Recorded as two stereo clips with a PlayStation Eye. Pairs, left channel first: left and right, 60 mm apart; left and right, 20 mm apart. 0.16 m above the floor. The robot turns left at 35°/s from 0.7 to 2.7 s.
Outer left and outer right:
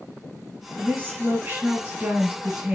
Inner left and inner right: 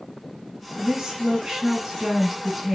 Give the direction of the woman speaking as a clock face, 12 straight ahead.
3 o'clock.